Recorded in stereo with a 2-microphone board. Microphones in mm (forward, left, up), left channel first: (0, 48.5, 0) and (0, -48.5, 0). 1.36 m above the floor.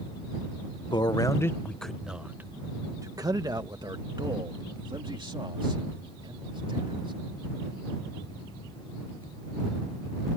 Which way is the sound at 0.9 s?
50° left (ahead or behind).